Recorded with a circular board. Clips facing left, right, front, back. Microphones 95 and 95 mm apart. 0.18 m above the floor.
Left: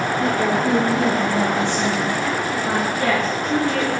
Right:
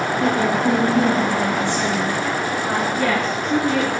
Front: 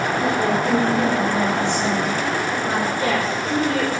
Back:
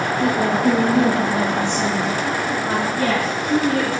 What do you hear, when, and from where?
0.2 s a woman speaking: straight behind, 2.5 m; by 2.9 s 145° left, 4.5 m
3.0 s a woman speaking: straight behind, 2.5 m